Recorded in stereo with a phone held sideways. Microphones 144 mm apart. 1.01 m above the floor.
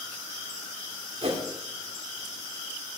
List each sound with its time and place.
1.2 s a whoosh: 45° right (ahead or behind), 1.9 m